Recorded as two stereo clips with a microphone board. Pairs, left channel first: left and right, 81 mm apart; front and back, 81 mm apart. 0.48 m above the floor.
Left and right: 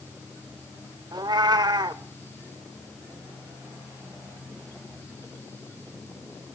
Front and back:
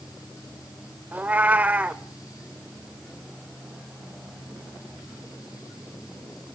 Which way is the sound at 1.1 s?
110° right.